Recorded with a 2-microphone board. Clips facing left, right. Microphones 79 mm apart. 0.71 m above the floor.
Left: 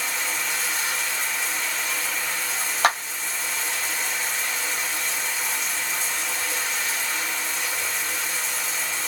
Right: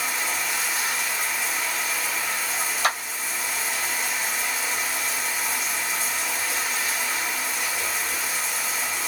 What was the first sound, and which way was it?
Running water, 5° right (ahead or behind).